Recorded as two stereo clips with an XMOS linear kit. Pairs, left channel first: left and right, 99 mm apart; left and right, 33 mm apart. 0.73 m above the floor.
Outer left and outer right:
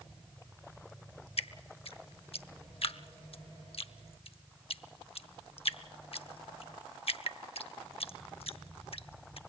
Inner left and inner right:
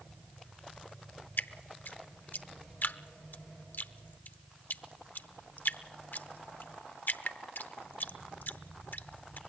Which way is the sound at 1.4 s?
75° left (ahead or behind).